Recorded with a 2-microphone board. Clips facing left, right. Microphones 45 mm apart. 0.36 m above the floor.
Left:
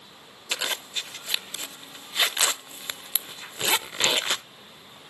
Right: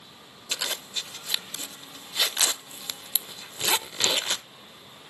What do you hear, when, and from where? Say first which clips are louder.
0.5 s a zipper: left 2 dB; 30° left (ahead or behind), 0.6 m